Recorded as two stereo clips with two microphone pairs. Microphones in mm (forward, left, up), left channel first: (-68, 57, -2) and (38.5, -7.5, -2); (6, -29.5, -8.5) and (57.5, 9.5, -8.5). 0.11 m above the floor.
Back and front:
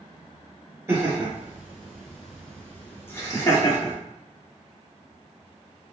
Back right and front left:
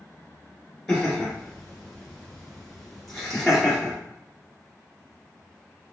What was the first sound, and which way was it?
Laughter, 65° right.